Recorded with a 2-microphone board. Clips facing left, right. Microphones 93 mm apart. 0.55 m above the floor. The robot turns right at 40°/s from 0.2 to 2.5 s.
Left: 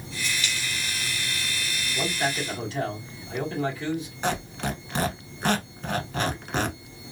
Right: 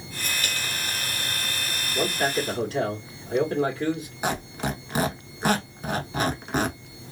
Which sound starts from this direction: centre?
A squeak, at 4.2 s.